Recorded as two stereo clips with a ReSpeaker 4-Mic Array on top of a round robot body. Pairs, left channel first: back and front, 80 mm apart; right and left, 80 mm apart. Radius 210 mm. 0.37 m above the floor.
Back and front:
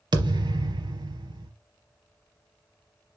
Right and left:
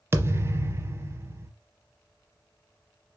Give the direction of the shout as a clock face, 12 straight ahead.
No shout in this recording.